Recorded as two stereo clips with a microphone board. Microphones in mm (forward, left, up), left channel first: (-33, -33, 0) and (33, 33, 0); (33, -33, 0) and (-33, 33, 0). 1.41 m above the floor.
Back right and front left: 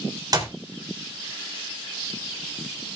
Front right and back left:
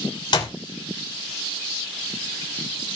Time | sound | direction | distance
0.3 | a clap | 10° right | 3 m